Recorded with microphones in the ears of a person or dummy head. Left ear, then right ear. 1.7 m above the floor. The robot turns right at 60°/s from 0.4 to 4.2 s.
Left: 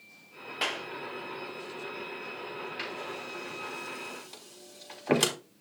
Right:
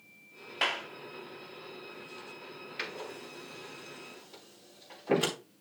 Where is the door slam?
15° right (ahead or behind), 3.5 m; by 5.3 s 70° left (ahead or behind), 3.5 m.